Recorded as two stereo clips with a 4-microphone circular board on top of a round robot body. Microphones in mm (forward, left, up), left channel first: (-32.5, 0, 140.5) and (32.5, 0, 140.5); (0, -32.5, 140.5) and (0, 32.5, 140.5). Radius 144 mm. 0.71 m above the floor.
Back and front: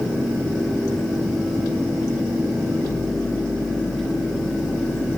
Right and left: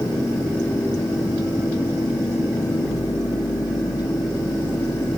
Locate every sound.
Only background noise.